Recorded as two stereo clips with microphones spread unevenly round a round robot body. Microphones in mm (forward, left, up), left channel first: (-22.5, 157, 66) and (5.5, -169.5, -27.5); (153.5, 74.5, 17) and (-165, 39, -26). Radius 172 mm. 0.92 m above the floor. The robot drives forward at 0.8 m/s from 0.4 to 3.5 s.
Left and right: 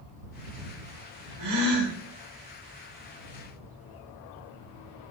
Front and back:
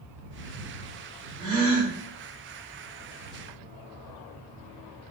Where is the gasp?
95° right, 3 m; by 1.9 s 100° right, 3 m.